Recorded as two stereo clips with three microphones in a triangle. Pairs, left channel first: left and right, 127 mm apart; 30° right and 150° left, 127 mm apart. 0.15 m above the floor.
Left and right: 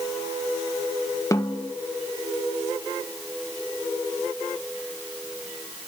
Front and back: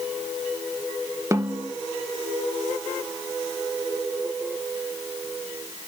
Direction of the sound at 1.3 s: 115° left.